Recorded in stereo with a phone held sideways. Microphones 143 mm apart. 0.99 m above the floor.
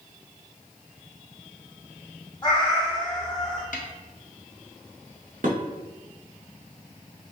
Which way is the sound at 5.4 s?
65° right (ahead or behind).